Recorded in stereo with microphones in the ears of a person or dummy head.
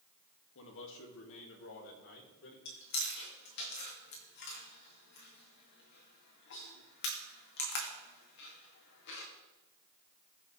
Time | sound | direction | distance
0.6 | a man speaking | 65° left (ahead or behind) | 2 m
2.6 | chewing | 60° left (ahead or behind) | 2 m